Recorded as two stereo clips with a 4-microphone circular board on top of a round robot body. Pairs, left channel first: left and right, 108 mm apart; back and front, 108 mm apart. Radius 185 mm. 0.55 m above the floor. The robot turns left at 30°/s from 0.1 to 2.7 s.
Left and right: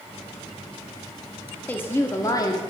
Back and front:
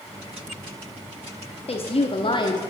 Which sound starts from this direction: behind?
A woman speaking, at 1.7 s.